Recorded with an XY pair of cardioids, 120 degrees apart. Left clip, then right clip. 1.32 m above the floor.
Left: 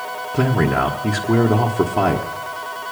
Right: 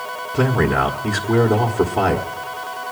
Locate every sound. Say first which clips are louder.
0.3 s a man speaking: right 1 dB; 10° left, 1.2 m